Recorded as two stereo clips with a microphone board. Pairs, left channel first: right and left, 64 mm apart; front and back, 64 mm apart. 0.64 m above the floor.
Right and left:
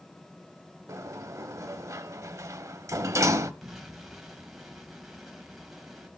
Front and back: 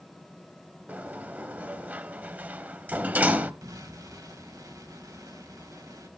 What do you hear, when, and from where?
0.9 s a sliding door: 115° left, 0.8 m
3.6 s an explosion: 175° left, 4.5 m